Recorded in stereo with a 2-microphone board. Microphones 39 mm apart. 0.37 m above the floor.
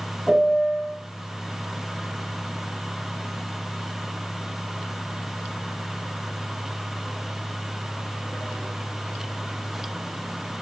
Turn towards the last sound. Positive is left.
turn(degrees=-5)  # may be behind; listen again after turning